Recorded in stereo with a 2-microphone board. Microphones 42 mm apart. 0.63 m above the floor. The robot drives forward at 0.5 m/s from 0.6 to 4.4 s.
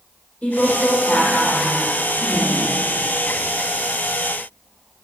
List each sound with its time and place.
0.4 s a woman speaking: 35° left (ahead or behind), 2.5 m; by 2.7 s 50° left (ahead or behind), 2.0 m